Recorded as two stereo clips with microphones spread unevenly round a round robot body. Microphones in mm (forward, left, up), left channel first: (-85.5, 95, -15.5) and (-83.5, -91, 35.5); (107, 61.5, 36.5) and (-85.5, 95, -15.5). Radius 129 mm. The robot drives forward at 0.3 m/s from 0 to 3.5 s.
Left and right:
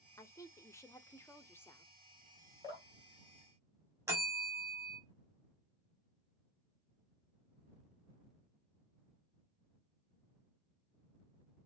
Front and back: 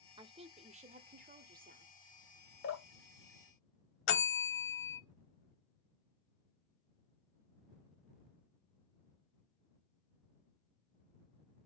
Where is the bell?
Straight ahead, 0.8 m.